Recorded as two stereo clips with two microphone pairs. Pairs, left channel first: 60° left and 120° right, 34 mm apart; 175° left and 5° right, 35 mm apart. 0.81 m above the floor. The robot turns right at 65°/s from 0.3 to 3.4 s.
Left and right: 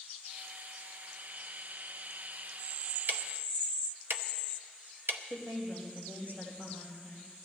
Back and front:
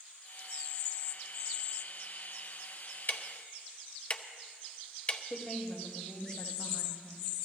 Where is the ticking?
150° right, 0.7 m; by 5.2 s 130° right, 0.7 m.